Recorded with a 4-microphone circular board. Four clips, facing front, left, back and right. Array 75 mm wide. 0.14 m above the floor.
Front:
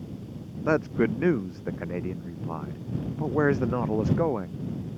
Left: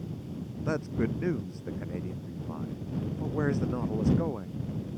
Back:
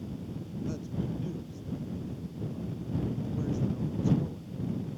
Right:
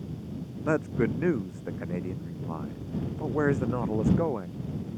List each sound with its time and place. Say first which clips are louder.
0.7 s a man speaking: right 4 dB, front 14 dB; 20° right